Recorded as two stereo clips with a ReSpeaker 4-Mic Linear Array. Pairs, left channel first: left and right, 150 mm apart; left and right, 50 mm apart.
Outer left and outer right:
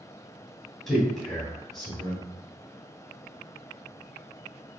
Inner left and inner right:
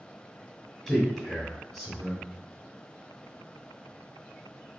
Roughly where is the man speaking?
Centre.